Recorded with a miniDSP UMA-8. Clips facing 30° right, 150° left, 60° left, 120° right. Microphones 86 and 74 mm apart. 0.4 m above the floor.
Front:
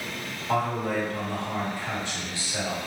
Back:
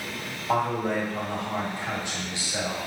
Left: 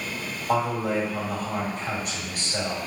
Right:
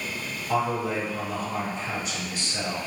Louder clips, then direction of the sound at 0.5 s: Back 1 dB, left 1 dB; 80° left.